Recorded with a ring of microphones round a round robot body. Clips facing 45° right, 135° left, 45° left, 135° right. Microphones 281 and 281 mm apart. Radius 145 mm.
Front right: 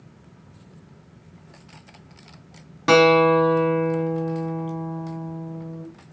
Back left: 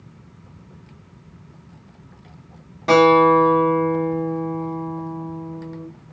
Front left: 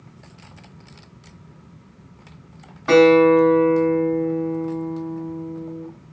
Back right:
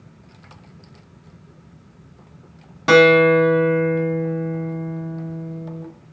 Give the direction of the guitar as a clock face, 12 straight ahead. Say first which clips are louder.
Back left 2 dB, front left 1 dB; 4 o'clock.